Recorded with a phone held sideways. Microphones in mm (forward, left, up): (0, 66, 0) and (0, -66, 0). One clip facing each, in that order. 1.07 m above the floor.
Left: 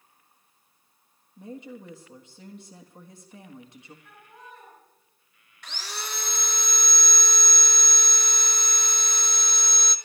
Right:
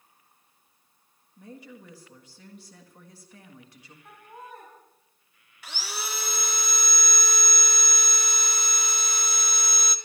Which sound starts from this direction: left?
A woman speaking, at 1.4 s.